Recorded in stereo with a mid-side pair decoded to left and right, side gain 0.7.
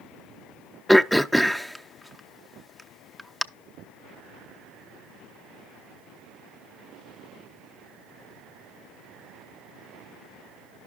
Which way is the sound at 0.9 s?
Straight ahead.